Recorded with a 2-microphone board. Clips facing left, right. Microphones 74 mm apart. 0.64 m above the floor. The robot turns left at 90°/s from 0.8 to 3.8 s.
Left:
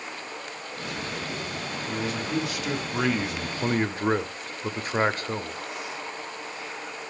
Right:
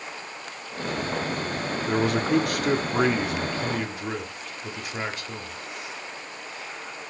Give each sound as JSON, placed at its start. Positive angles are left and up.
{"t": 1.9, "sound": "a man speaking", "azimuth_deg": -55, "distance_m": 0.9}